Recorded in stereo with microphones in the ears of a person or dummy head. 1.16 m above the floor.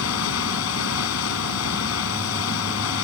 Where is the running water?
80° left.